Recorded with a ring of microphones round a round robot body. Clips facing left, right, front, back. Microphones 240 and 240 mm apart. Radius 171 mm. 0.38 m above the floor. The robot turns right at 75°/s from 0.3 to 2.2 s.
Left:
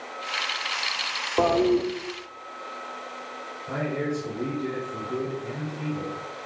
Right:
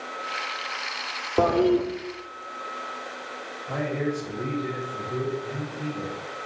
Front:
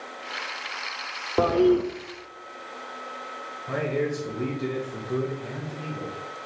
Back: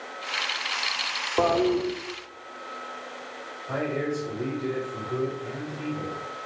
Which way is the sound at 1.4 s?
40° right.